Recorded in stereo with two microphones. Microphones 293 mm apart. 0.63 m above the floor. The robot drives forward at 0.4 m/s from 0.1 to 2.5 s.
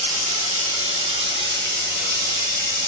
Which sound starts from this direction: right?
Running water, at 0.0 s.